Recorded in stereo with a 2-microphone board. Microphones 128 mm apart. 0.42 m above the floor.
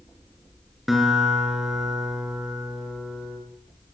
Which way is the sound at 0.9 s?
Centre (ahead or behind).